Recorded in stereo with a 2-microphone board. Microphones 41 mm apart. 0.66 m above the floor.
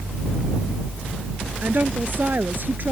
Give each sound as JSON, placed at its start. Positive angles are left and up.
{"t": 1.6, "sound": "a woman speaking", "side_deg": -55}